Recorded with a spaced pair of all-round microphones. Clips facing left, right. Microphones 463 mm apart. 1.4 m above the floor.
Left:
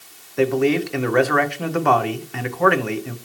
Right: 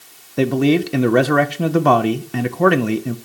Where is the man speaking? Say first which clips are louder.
Right 2 dB; 55° right (ahead or behind), 0.7 m.